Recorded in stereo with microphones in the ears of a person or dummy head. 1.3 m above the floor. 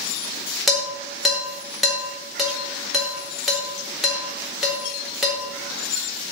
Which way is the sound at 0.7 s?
5° right (ahead or behind).